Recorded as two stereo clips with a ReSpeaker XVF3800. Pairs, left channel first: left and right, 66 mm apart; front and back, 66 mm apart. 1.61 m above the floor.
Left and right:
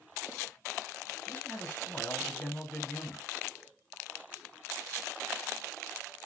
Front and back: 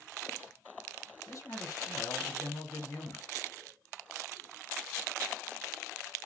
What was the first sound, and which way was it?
A man speaking, 35° left.